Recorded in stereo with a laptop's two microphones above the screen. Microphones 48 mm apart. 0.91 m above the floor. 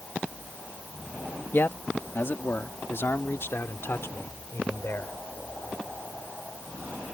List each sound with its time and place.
1.5 s a man speaking: 40° left (ahead or behind); by 5.2 s 55° left (ahead or behind)